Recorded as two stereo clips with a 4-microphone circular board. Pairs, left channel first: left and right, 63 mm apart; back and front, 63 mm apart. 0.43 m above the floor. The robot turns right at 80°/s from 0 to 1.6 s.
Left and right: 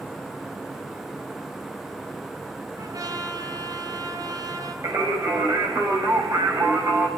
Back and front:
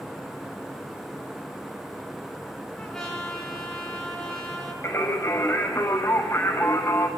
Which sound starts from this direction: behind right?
Singing, at 4.8 s.